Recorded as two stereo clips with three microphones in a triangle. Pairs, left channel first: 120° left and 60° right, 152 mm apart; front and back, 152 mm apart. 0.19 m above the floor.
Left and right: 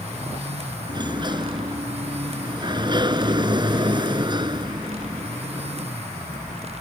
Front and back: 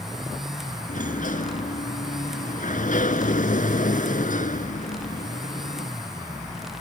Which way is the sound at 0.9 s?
5° right.